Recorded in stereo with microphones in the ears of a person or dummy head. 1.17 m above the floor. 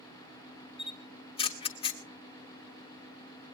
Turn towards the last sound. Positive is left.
turn(degrees=25)  # may be behind; listen again after turning